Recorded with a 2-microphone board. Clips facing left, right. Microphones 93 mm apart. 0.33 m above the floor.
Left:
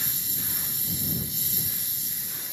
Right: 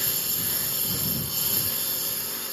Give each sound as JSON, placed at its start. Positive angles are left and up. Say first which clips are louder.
{"t": 0.0, "sound": "a lawn mower", "louder": "right 4 dB", "side_deg": -60}